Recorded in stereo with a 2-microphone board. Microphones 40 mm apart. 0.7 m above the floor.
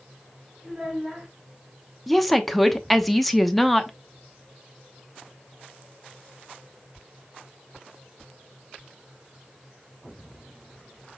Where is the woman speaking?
5° left (ahead or behind), 0.7 m.